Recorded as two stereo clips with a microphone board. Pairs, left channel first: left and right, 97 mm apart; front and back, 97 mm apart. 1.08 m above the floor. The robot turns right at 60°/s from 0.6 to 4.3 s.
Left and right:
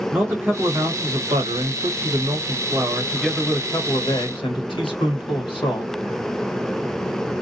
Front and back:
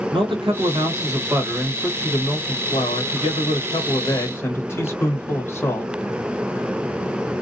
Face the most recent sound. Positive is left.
turn(degrees=65)